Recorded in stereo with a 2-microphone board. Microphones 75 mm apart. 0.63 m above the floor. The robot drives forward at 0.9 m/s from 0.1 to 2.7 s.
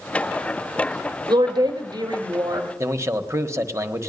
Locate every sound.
1.3 s a woman speaking: 65° right (ahead or behind), 1.5 m; by 2.7 s 50° right (ahead or behind), 1.7 m
2.8 s a man speaking: 40° right (ahead or behind), 1.3 m